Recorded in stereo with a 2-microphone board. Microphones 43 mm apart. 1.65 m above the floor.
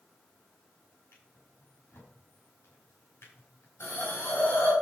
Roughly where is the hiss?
Left.